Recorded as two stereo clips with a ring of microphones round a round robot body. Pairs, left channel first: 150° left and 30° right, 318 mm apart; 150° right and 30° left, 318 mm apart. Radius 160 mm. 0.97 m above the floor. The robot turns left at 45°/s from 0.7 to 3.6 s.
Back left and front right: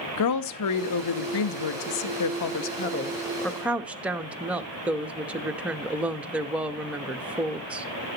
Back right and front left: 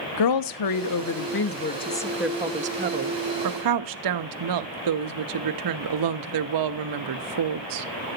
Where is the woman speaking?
175° right, 1.0 m; by 7.9 s 55° left, 1.0 m.